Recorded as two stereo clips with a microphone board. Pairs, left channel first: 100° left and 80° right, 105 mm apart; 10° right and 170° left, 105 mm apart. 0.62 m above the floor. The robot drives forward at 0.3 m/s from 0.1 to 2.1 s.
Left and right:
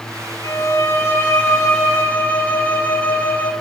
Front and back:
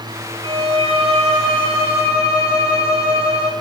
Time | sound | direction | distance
0.4 | a violin | 160° left | 0.7 m